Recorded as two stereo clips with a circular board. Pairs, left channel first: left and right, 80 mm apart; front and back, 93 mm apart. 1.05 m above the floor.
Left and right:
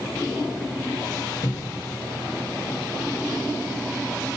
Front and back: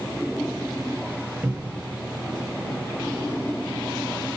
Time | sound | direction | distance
1.4 | a cupboard door | 110° left | 0.8 m